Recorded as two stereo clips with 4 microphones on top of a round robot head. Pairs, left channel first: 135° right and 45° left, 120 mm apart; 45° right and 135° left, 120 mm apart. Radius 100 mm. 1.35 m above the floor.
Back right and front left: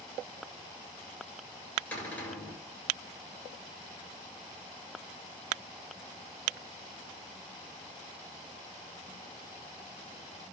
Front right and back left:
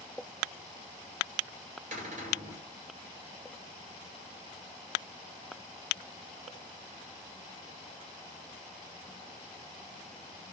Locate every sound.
1.9 s a cupboard door: 155° left, 6.5 m